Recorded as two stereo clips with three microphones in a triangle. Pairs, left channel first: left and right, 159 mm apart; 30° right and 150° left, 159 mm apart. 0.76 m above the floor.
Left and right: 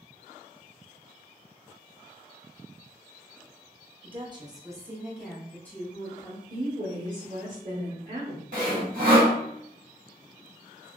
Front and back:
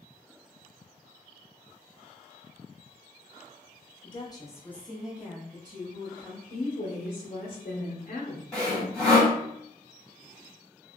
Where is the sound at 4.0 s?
65° right, 0.8 m; by 6.4 s 140° left, 1.0 m.